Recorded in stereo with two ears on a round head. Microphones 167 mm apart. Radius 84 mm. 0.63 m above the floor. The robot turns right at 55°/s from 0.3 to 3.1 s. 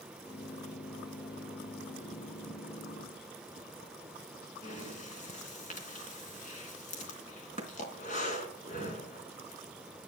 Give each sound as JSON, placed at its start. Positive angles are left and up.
{"t": 4.6, "sound": "breathing", "side_deg": 45, "distance_m": 3.5}